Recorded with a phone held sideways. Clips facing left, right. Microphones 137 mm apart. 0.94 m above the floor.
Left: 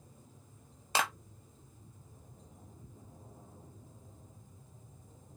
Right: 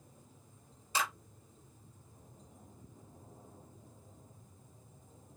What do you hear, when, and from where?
0.9 s a clap: 70° left (ahead or behind), 1.2 m